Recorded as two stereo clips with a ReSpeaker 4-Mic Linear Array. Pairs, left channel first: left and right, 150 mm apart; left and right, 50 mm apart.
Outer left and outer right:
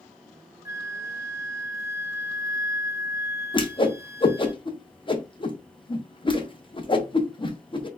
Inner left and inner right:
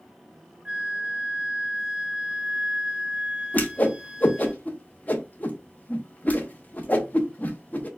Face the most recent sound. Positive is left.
turn(degrees=35)  # may be behind; listen again after turning